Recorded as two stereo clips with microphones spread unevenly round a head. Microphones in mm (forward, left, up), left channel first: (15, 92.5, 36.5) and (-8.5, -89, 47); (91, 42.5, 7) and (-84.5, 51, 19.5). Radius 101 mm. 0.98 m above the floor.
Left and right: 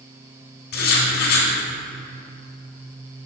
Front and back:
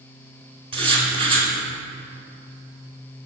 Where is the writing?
120° left, 2 m.